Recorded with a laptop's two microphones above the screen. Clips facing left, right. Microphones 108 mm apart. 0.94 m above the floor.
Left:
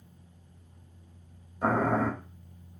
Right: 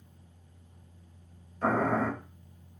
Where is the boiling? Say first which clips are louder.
Left 1 dB; 15° left (ahead or behind), 0.8 m.